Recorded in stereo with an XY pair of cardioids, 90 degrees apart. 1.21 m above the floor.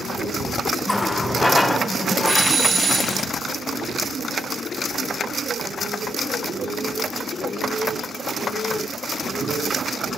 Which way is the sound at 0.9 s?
15° left.